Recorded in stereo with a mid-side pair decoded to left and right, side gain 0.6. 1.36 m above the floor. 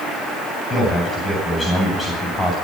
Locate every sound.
0.7 s a man speaking: 20° left, 8 m